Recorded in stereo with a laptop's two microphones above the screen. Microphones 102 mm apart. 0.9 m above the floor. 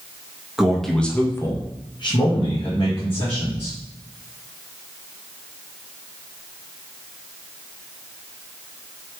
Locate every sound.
0.6 s a man speaking: 5° right (ahead or behind), 0.9 m; by 3.8 s 60° left (ahead or behind), 1.7 m